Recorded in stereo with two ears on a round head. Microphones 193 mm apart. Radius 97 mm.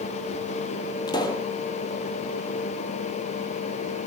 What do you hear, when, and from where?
1.1 s a pop: 20° left (ahead or behind), 2 m